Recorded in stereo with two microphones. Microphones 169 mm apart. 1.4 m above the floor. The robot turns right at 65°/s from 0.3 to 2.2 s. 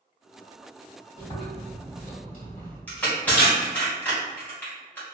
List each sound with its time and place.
1.2 s chewing: 35° left, 1.8 m; by 2.8 s 100° left, 1.8 m
2.9 s crushing: 10° left (ahead or behind), 1.5 m